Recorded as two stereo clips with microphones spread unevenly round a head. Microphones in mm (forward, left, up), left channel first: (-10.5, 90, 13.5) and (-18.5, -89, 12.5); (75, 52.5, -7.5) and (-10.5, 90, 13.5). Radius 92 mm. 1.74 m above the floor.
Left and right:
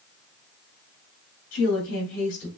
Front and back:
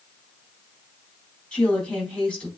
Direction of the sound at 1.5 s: 60° left.